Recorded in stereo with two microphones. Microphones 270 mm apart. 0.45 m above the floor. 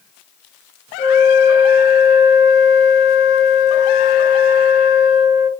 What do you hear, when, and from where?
1.0 s a flute: 40° left (ahead or behind), 0.8 m